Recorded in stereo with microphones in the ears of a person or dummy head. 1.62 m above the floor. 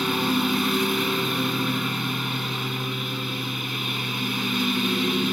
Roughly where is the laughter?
No laughter in this recording.